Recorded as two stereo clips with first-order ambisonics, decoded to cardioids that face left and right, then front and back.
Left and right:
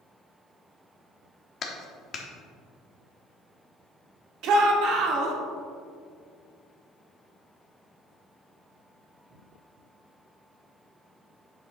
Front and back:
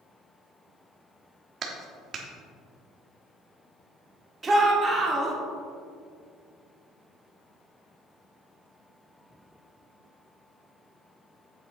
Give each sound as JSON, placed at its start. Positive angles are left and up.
{"t": 1.6, "sound": "a clap", "azimuth_deg": 135, "distance_m": 0.9}
{"t": 4.4, "sound": "a shout", "azimuth_deg": -110, "distance_m": 1.4}